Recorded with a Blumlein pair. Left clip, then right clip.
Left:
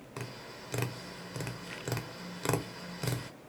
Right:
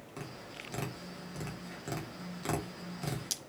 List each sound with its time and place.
0.2 s tapping: 20° left, 1.0 m